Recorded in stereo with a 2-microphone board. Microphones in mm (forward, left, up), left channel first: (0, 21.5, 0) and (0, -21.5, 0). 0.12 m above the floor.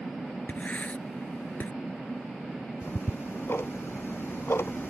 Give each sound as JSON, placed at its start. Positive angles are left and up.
{"t": 0.5, "sound": "writing", "side_deg": 40}
{"t": 2.8, "sound": "ticking", "side_deg": 70}